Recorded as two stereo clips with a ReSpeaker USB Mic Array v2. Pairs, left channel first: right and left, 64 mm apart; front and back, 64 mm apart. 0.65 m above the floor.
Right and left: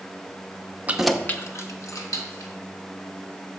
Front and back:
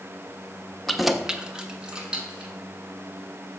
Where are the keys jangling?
80° left, 0.6 m; by 2.5 s 105° right, 1.9 m.